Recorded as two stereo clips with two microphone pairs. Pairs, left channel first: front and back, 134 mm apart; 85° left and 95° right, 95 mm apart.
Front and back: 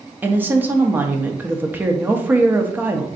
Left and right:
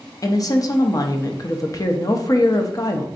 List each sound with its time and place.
0.2 s a woman speaking: 115° left, 0.5 m